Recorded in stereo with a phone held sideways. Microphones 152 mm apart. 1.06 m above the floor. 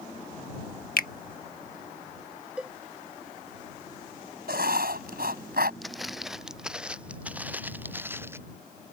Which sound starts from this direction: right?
Writing, at 4.5 s.